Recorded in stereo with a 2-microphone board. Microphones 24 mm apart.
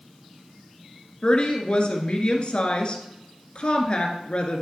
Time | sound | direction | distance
1.2 | a woman speaking | 50° left (ahead or behind) | 1.7 m